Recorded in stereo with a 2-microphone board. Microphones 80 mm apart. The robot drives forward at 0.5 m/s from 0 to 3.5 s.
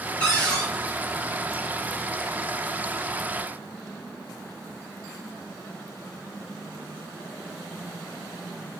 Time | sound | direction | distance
0.2 | a cupboard door | 15° left (ahead or behind) | 1.0 m